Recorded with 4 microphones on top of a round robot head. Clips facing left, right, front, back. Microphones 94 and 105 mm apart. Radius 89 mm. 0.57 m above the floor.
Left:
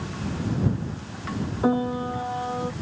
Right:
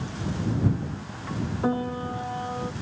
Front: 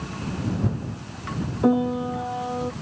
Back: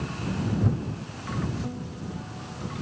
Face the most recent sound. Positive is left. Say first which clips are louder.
# left 4 dB, front 15 dB
turn(degrees=15)